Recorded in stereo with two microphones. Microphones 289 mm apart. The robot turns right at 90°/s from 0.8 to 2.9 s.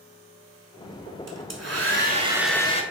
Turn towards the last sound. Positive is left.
turn(degrees=40)